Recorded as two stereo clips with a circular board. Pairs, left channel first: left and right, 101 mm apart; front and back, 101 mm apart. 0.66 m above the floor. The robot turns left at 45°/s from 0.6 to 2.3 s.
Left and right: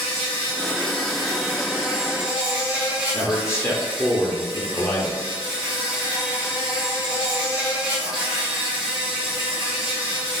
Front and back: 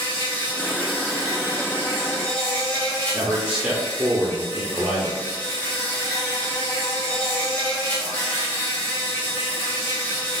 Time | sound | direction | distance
0.0 | an insect | 40° left | 1.1 m
3.1 | a man speaking | 110° left | 0.6 m